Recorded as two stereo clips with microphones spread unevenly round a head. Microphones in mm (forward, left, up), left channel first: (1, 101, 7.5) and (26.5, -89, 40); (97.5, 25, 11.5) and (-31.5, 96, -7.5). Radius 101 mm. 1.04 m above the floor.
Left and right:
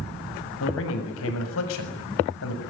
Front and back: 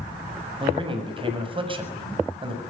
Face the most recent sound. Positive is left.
turn(degrees=100)